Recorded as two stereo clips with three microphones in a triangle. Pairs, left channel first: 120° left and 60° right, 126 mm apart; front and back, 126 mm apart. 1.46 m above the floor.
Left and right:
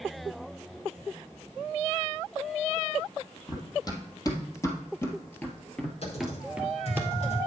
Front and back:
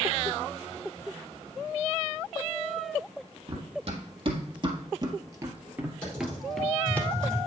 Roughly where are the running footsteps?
Behind.